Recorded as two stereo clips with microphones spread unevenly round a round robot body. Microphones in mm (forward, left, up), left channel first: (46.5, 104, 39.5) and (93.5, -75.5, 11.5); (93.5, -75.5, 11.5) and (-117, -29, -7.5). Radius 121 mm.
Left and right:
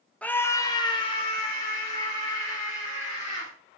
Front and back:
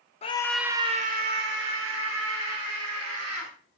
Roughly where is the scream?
Ahead.